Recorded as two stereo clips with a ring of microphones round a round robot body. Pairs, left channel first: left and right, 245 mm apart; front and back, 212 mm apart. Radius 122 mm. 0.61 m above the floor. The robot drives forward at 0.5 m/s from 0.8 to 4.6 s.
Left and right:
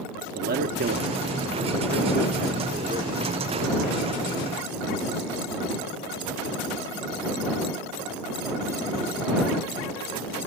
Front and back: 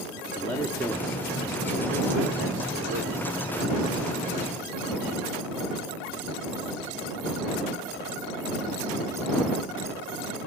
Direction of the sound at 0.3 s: 75° right.